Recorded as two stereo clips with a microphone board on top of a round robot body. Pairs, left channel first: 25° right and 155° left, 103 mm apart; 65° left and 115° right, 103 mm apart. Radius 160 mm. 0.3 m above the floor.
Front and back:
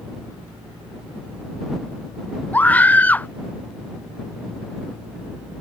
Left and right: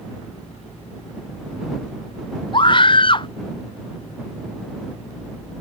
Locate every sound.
2.5 s a scream: 50° left